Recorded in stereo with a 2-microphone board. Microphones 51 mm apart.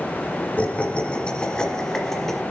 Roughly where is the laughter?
Left.